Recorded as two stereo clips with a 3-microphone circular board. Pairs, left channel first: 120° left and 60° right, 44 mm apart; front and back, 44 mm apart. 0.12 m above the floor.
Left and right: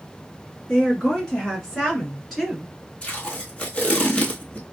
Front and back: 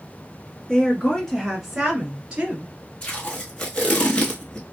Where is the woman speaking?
60° left, 1.9 m; by 2.7 s 140° right, 1.8 m.